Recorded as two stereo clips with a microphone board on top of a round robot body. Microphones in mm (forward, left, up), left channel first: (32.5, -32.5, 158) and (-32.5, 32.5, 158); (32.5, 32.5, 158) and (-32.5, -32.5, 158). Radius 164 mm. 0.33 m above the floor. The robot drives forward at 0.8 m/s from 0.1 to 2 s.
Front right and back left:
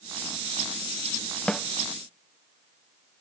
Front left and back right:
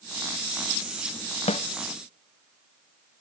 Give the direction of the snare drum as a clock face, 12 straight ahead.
11 o'clock.